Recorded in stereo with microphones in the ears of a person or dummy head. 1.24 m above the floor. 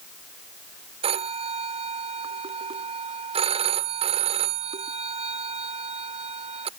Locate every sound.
1.0 s a phone ringing: 35° right (ahead or behind)